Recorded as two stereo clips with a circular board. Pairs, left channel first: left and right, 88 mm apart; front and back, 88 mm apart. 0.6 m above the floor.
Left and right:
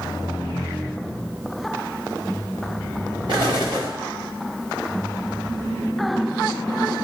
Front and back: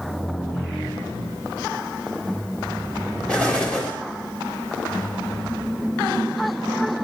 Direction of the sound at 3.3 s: 75° right.